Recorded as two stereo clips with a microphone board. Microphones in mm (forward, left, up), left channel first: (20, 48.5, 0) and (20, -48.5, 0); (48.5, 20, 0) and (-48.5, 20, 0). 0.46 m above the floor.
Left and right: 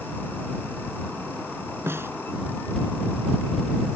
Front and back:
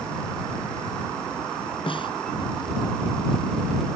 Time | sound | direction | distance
1.9 | a snare drum | 25° right | ?